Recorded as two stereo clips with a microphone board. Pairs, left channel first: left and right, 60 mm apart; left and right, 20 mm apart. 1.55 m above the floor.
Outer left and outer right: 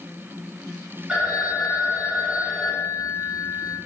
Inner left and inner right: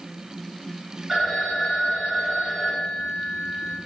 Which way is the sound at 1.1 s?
10° right (ahead or behind).